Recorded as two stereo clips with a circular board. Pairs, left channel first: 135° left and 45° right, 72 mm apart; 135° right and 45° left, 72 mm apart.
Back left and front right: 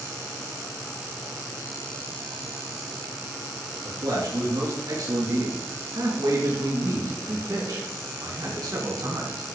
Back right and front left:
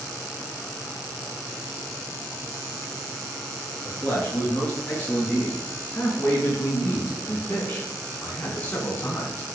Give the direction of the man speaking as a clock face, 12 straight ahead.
2 o'clock.